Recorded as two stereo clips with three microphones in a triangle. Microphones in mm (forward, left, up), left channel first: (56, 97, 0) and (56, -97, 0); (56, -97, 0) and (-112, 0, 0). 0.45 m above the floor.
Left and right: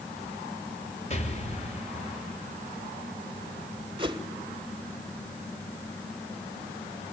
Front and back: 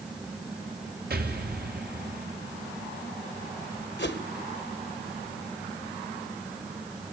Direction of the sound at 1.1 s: 135° left.